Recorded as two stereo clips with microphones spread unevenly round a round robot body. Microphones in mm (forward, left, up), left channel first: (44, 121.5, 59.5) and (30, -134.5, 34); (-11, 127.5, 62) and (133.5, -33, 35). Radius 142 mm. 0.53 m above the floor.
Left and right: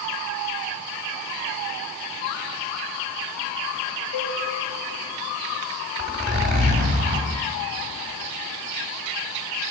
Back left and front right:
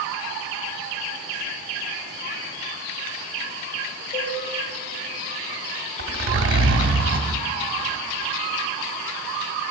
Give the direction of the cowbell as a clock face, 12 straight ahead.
9 o'clock.